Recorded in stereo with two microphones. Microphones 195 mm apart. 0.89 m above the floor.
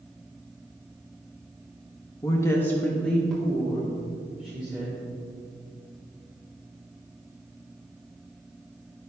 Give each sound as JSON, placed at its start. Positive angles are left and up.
{"t": 2.2, "sound": "a woman speaking", "side_deg": 20, "distance_m": 1.0}